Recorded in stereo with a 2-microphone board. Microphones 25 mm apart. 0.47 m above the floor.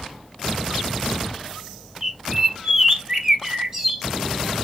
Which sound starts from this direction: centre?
A bird, at 2.0 s.